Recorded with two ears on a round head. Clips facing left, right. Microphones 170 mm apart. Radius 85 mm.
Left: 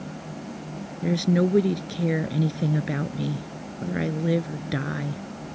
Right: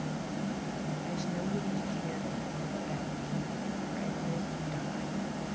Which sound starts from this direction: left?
A woman speaking, at 1.0 s.